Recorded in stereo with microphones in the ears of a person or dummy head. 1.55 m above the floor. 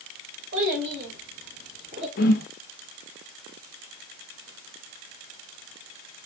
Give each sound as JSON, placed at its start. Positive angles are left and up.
{"t": 0.5, "sound": "a child speaking", "side_deg": -60, "distance_m": 2.0}
{"t": 2.2, "sound": "a whoosh", "side_deg": 50, "distance_m": 0.6}